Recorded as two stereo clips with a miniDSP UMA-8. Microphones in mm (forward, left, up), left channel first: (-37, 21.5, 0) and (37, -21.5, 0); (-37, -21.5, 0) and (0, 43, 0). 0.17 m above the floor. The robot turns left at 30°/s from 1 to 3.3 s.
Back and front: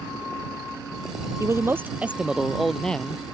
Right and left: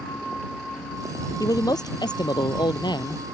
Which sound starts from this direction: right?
A man speaking, at 1.4 s.